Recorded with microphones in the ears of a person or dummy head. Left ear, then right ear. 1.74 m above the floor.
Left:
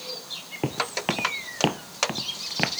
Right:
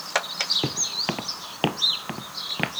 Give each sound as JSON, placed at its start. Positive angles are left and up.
{"t": 0.6, "sound": "footsteps", "side_deg": 5}